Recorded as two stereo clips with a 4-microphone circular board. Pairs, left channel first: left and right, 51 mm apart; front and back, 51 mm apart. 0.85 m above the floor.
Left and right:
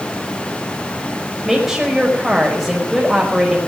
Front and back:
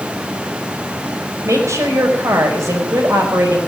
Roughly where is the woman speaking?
Behind.